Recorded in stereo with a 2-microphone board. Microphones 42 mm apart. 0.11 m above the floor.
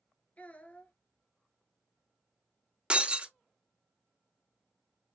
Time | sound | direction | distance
0.4 | a child speaking | 30° left (ahead or behind) | 1.0 m
2.9 | breaking glass | 25° right (ahead or behind) | 0.7 m